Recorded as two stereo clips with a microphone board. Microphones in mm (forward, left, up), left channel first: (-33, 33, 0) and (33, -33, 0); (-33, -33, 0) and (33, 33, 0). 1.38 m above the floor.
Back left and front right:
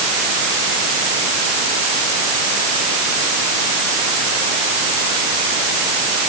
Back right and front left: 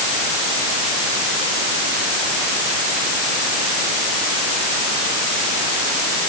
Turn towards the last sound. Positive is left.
No sound to turn to.